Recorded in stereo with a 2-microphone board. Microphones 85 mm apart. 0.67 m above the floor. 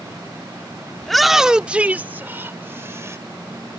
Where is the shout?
5° left (ahead or behind); by 3.2 s 30° right (ahead or behind).